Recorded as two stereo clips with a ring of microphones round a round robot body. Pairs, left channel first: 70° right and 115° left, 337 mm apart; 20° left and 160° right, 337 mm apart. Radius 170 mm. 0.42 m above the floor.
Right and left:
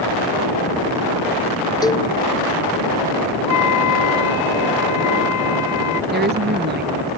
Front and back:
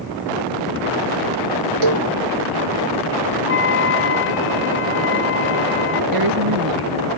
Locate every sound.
1.8 s a cowbell: 145° right
3.5 s a flute: 30° right
6.1 s a woman speaking: 175° left